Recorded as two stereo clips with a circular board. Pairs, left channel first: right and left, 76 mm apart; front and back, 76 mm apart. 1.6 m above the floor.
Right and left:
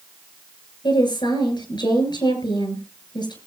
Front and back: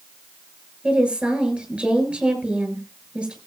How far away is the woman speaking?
About 7.5 m.